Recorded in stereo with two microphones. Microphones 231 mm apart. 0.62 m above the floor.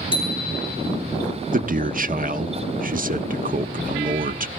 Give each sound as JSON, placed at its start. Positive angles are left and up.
{"t": 0.1, "sound": "a bicycle bell", "side_deg": 20, "distance_m": 5.0}
{"t": 1.5, "sound": "a man speaking", "side_deg": -35, "distance_m": 1.0}